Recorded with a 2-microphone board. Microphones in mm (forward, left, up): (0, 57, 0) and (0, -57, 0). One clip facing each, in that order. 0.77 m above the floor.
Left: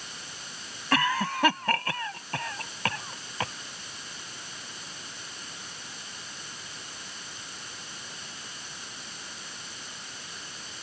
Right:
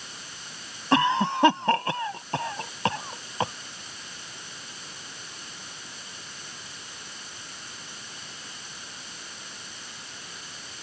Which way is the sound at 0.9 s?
25° right (ahead or behind).